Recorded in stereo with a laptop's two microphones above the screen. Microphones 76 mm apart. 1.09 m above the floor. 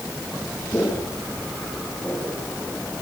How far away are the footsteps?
About 7.5 m.